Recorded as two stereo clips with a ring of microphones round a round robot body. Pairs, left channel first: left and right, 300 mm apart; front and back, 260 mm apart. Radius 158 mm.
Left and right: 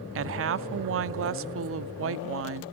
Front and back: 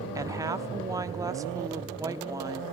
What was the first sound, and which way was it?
A woman speaking, 105° right.